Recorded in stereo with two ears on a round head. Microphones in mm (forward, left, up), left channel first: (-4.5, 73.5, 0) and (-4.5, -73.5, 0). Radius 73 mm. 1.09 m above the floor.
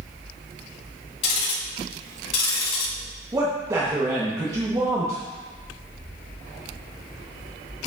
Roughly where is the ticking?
Left.